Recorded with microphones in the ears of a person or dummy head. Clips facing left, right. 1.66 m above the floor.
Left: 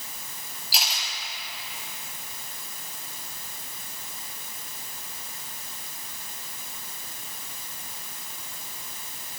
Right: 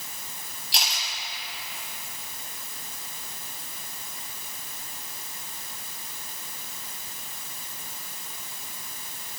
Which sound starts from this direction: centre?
A camera shutter, at 0.7 s.